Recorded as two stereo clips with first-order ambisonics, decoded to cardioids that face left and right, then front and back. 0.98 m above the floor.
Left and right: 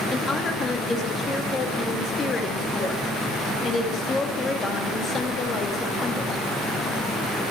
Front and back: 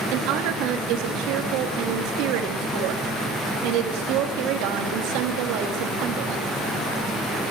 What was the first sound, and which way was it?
A woman speaking, 165° left.